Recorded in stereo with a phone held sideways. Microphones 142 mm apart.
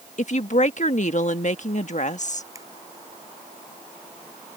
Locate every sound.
0.2 s a woman speaking: 60° left (ahead or behind)
2.5 s a finger snap: 25° right (ahead or behind)